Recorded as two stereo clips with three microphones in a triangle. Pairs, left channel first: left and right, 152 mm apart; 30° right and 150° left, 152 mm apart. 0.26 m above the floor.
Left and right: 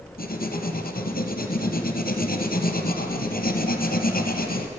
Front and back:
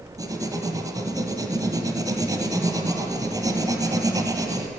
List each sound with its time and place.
0.2 s writing: 85° left, 1.1 m